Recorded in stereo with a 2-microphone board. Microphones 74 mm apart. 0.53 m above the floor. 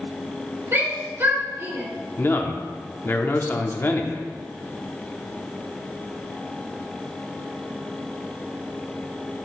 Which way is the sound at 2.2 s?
30° left (ahead or behind).